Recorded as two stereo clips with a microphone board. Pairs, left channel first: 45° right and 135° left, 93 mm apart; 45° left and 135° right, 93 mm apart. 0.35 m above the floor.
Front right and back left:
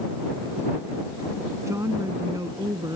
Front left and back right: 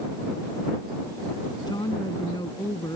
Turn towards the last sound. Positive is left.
turn(degrees=90)